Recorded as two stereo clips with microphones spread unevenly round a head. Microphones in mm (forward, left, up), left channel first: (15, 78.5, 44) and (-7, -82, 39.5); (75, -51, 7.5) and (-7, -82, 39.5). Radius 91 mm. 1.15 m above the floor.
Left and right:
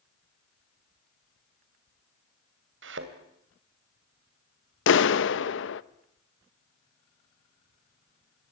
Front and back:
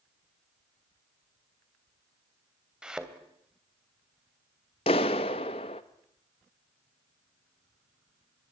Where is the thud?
85° right, 3 m.